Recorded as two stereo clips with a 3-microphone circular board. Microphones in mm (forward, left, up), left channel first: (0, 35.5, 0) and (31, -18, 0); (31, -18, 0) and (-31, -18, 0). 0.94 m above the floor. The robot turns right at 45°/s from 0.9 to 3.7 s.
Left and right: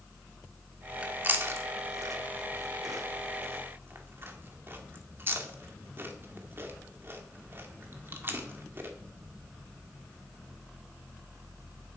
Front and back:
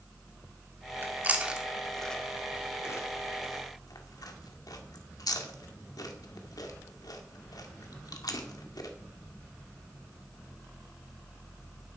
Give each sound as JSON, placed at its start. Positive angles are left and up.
{"t": 1.0, "sound": "chewing", "azimuth_deg": -130, "distance_m": 1.7}